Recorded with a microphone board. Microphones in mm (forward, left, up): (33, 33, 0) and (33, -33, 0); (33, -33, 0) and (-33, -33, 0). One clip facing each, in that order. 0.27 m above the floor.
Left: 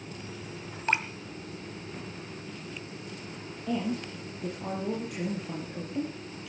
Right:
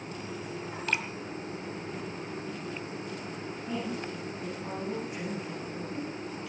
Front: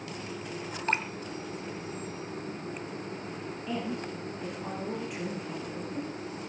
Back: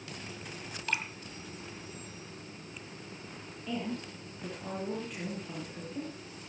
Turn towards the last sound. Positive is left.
turn(degrees=80)